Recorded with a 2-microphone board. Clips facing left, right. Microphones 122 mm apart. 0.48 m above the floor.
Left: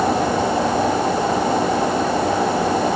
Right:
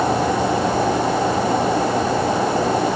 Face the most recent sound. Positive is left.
No sound to turn to.